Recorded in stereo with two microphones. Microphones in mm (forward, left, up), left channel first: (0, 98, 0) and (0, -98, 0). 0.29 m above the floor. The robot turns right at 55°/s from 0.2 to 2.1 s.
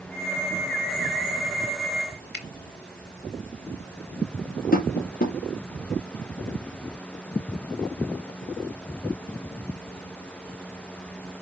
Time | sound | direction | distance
2.3 | a finger snap | 60° left (ahead or behind) | 3 m
4.7 | tapping | 50° left (ahead or behind) | 2.0 m